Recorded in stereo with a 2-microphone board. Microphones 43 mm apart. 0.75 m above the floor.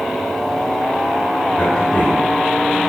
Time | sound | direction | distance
1.6 | a man speaking | 25° left (ahead or behind) | 5.5 m